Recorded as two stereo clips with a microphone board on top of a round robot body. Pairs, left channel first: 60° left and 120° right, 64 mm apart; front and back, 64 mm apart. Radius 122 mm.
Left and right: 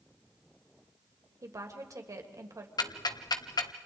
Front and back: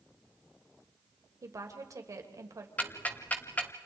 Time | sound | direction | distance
1.4 | a woman speaking | 150° right | 3 m
2.8 | ticking | 70° left | 1.2 m